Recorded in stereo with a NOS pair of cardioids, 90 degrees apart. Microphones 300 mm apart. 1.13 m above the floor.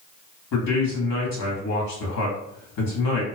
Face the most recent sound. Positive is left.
turn(degrees=60)